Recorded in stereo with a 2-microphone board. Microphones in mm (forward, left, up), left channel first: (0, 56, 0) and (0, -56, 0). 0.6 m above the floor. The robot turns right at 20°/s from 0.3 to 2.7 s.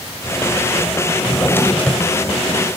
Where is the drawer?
25° left (ahead or behind), 1.6 m; by 2.8 s 5° right (ahead or behind), 1.6 m.